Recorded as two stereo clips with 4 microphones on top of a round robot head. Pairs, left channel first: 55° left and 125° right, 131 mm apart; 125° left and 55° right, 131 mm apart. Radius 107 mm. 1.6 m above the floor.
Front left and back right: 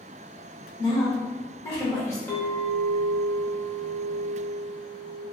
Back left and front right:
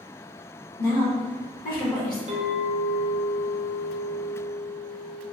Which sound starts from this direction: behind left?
A woman speaking, at 0.8 s.